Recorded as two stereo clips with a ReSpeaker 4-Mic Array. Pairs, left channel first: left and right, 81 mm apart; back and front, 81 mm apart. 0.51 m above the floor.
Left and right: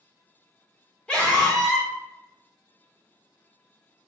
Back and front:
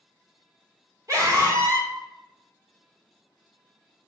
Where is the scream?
15° left, 1.7 m.